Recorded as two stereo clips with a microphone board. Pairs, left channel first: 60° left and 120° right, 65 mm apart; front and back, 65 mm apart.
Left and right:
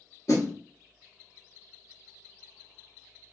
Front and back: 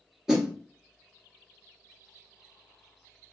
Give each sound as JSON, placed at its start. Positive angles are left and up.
{"t": 0.3, "sound": "a snare drum", "azimuth_deg": 100, "distance_m": 1.7}